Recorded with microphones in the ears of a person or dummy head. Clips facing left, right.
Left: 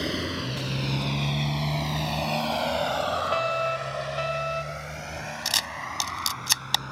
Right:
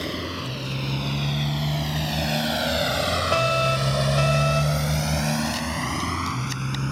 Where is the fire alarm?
55° right (ahead or behind).